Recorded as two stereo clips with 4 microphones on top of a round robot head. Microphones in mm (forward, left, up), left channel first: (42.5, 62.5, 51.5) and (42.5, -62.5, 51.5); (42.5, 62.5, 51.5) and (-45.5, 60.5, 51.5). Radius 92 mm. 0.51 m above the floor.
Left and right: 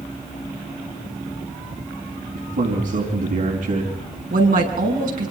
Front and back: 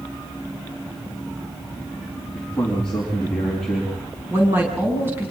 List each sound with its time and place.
2.4 s a man speaking: 85° right, 4.5 m
4.3 s a woman speaking: 105° right, 6.5 m